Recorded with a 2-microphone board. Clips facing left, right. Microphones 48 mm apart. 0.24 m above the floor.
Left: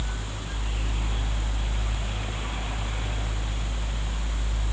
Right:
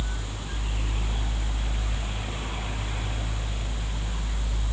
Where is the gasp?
No gasp in this recording.